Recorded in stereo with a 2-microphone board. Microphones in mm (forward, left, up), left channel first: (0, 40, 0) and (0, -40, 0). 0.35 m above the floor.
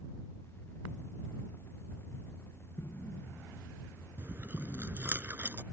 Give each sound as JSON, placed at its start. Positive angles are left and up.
{"t": 2.8, "sound": "an explosion", "side_deg": 35}
{"t": 4.2, "sound": "chewing", "side_deg": -30}